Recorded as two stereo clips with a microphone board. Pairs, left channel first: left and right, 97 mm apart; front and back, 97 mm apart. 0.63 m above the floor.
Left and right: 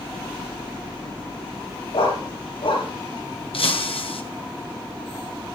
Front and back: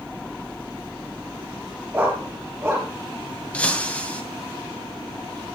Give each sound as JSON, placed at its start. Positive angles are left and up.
{"t": 1.9, "sound": "a dog barking", "azimuth_deg": 105, "distance_m": 5.5}
{"t": 3.5, "sound": "breaking glass", "azimuth_deg": 75, "distance_m": 2.0}